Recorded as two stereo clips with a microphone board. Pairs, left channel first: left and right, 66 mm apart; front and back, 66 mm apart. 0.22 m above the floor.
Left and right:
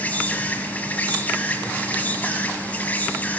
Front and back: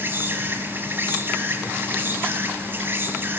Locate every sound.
0.0 s an insect: 145° left, 1.0 m